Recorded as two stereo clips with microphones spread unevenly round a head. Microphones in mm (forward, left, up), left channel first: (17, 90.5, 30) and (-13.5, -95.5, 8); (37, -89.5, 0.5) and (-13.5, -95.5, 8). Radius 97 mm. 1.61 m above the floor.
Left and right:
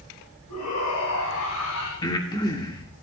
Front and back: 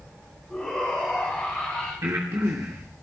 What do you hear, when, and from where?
0.5 s a shout: 90° left, 3.5 m; by 1.9 s 80° left, 2.5 m
2.0 s breathing: 145° left, 2.5 m